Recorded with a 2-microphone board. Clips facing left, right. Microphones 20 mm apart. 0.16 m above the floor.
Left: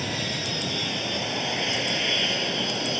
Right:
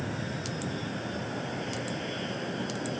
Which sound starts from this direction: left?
An aircraft, at 0.0 s.